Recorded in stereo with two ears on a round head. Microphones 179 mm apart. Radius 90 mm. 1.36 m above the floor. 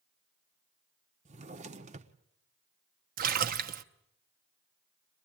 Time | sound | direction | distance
1.2 | a drawer | 35° right (ahead or behind) | 1.1 m
3.2 | a splash | 45° right (ahead or behind) | 1.0 m